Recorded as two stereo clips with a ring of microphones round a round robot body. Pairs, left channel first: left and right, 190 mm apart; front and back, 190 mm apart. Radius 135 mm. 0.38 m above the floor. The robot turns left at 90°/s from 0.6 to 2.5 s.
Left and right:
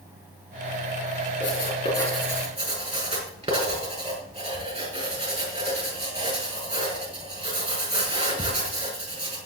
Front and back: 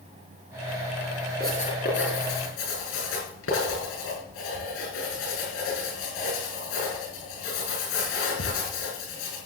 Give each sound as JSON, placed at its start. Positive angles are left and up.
{"t": 1.4, "sound": "writing", "azimuth_deg": 65, "distance_m": 6.5}